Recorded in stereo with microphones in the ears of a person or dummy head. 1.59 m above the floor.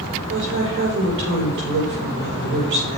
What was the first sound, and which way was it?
A woman speaking, 70° right (ahead or behind).